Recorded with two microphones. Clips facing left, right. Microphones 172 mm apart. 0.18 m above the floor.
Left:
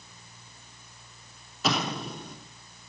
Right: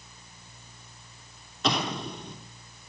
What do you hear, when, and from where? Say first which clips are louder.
1.6 s an explosion: even; 5° left (ahead or behind), 3 m